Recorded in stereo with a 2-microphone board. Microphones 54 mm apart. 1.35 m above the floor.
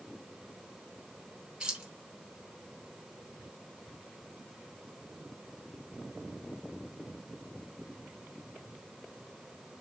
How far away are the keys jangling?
About 1.2 m.